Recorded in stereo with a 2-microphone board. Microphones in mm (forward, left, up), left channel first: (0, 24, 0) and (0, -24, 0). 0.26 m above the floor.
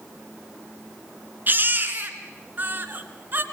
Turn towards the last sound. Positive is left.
turn(degrees=-35)  # may be behind; listen again after turning